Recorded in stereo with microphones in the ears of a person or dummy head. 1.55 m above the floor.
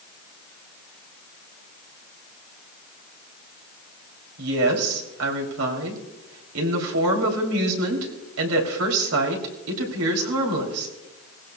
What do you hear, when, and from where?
4.4 s a woman speaking: 85° right, 3.5 m